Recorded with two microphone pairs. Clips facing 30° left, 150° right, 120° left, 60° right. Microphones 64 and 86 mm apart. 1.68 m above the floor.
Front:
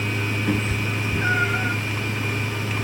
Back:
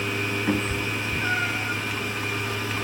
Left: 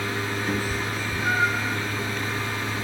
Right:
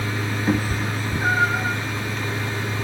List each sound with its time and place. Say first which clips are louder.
0.5 s a cat meowing: front 1 dB, right 4 dB; 75° right, 1.2 m; by 1.8 s 15° right, 2.5 m